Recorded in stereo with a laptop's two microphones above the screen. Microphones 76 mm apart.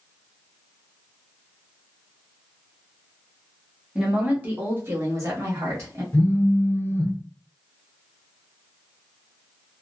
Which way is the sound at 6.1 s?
30° left (ahead or behind).